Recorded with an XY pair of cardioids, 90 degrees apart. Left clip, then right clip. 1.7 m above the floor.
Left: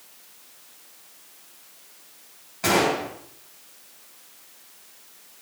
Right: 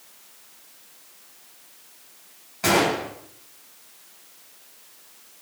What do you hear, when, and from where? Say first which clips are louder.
2.6 s a gunshot: right 1 dB; 15° right, 8.5 m